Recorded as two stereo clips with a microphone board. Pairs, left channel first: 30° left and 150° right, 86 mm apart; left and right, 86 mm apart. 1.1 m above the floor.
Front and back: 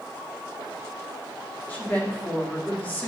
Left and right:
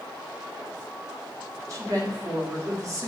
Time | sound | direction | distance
1.7 | a woman speaking | 40° right | 3.5 m